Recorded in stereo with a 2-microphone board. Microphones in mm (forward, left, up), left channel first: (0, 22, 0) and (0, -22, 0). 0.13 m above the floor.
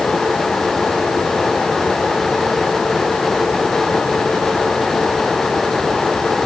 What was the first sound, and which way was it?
Only background noise.